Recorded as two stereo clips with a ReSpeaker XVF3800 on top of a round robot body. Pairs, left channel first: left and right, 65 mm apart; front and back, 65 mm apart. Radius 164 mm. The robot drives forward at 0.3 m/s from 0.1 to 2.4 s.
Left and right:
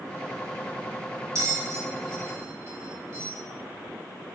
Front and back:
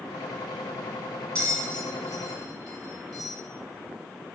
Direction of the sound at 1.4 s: 65° right.